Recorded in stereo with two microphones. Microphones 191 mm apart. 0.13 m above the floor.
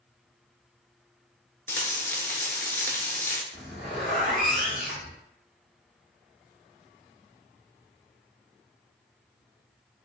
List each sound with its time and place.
1.7 s frying: 10° left (ahead or behind), 0.5 m
3.5 s a zipper: centre (ahead or behind), 1.0 m